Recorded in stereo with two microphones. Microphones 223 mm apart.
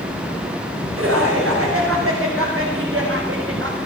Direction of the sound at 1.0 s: 90° right.